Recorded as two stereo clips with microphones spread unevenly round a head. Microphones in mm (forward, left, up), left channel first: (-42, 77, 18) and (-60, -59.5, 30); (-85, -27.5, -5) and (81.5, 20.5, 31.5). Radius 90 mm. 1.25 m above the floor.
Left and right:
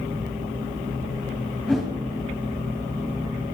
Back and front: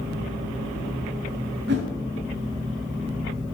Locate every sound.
1.7 s a whoosh: 5° right, 3 m